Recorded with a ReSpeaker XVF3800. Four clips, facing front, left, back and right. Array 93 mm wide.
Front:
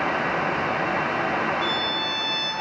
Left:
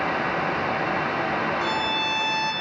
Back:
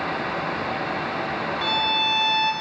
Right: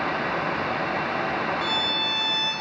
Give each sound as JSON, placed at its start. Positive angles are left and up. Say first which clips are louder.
{"t": 1.6, "sound": "a violin", "louder": "left 2 dB, back 2 dB", "azimuth_deg": 160, "distance_m": 5.5}